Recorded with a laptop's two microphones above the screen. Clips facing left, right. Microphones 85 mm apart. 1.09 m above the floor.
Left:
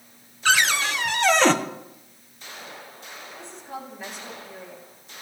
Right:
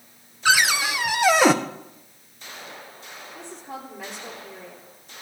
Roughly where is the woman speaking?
Right.